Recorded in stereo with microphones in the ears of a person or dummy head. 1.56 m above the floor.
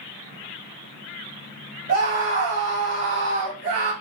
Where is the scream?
45° right (ahead or behind), 3.5 m.